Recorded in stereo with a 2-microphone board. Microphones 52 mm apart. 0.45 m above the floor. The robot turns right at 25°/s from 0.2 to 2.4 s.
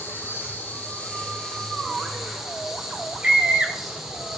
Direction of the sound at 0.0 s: 130° left.